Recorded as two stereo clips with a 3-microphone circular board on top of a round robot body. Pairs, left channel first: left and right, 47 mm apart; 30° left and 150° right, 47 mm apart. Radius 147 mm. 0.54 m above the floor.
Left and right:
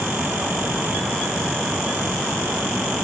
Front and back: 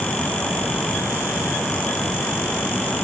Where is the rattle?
I don't hear a rattle.